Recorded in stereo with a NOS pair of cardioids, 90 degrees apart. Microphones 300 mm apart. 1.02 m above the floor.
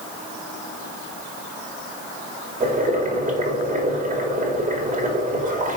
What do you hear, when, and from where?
2.6 s boiling: 25° right, 2.5 m